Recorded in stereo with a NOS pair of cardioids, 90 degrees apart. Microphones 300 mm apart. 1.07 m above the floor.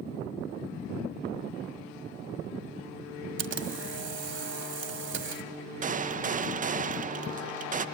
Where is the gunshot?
25° right, 0.5 m.